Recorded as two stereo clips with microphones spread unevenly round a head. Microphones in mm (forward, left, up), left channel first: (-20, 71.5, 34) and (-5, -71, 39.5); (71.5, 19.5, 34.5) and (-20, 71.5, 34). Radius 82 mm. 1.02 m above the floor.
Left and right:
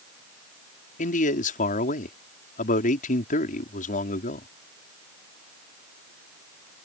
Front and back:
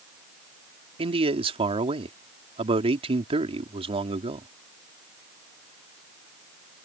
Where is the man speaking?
125° left.